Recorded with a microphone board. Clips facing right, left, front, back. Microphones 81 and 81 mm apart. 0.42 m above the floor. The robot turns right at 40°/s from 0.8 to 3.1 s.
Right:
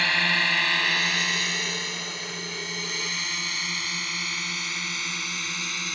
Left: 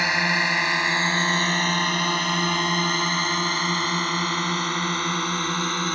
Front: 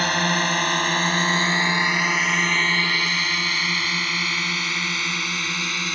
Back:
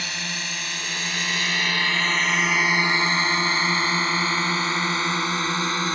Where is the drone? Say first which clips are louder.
Left 3 dB, front 11 dB; 20° left; by 6.0 s 125° left.